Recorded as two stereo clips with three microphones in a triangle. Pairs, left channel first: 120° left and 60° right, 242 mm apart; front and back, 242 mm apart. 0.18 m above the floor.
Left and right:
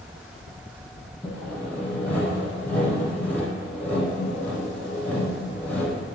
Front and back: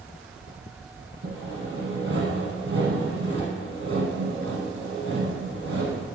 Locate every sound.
1.2 s sawing: 155° right, 1.1 m